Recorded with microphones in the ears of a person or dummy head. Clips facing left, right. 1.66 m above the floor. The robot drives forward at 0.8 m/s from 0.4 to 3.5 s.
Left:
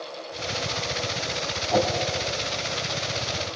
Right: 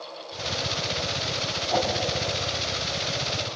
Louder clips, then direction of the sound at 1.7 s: Left 3 dB; 5° left (ahead or behind).